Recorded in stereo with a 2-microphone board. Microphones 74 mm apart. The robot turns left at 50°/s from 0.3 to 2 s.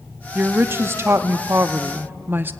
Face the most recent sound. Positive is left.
turn(degrees=-130)